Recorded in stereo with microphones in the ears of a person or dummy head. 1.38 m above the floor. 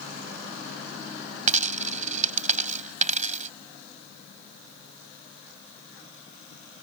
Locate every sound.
1.5 s a dropped coin: 45° right (ahead or behind)